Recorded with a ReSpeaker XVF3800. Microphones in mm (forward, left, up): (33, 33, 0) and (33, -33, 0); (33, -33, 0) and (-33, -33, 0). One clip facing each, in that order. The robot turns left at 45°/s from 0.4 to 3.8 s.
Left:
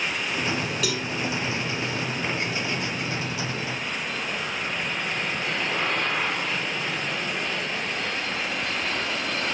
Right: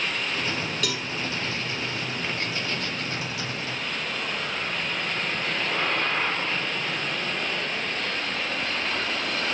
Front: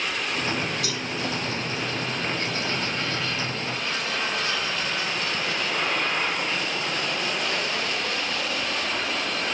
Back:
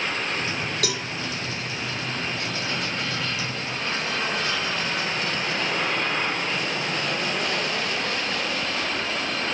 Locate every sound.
0.8 s a cowbell: 175° left, 2.5 m; by 1.1 s 165° left, 2.5 m